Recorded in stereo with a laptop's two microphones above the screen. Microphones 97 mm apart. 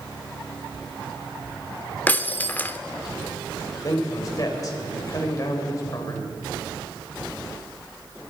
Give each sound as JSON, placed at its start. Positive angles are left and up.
{"t": 2.1, "sound": "breaking glass", "side_deg": 20, "distance_m": 0.8}
{"t": 3.8, "sound": "a man speaking", "side_deg": 40, "distance_m": 4.0}